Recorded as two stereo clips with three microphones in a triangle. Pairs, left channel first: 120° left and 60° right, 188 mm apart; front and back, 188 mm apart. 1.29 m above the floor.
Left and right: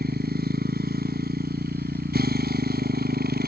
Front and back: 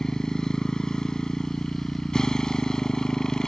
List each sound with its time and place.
0.0 s a motorcycle: 85° right